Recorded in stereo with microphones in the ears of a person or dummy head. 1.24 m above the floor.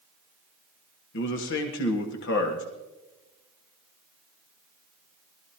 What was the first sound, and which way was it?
A man speaking, 60° left (ahead or behind).